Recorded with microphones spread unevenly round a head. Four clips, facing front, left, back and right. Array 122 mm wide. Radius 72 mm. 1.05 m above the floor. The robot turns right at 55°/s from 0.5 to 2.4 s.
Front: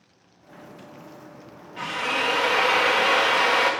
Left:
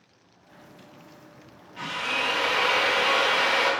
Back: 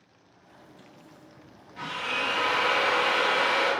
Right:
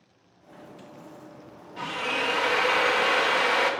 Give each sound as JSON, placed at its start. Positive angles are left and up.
{"t": 1.8, "sound": "a drill", "azimuth_deg": -70, "distance_m": 0.7}